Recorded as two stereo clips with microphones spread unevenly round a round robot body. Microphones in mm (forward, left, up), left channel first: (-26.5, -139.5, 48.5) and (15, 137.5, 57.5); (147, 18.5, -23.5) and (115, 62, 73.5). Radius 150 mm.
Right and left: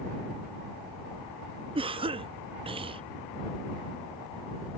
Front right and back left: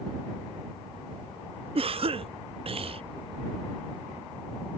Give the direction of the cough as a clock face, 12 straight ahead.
11 o'clock.